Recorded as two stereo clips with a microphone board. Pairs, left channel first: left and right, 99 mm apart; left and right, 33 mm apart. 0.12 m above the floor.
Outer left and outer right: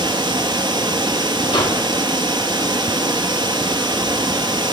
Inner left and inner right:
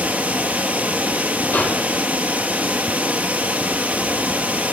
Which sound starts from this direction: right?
Running water, at 0.0 s.